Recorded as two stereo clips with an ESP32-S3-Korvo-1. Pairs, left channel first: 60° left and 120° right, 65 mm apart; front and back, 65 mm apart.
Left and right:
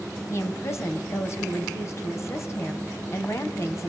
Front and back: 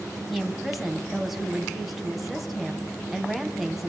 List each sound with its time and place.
0.3 s a woman speaking: 95° left, 2.5 m